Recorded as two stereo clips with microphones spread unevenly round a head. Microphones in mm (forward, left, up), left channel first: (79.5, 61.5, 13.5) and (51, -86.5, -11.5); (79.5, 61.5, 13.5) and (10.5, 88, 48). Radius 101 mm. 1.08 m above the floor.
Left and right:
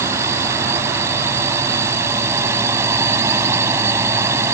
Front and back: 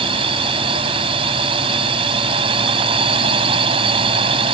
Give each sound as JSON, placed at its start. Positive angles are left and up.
{"t": 0.0, "sound": "a drone", "azimuth_deg": 180}